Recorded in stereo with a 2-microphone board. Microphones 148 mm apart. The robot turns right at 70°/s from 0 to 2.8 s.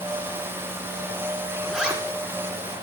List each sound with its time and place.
1.7 s a zipper: 5° left (ahead or behind), 1.6 m; by 2.0 s 15° right (ahead or behind), 1.6 m